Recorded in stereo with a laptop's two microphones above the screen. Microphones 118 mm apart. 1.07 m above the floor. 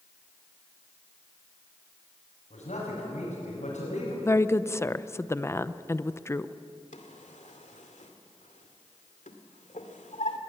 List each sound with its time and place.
2.5 s a man speaking: 85° left, 6.5 m
4.2 s a woman speaking: 20° left (ahead or behind), 0.6 m
6.9 s a drawer: 85° left, 2 m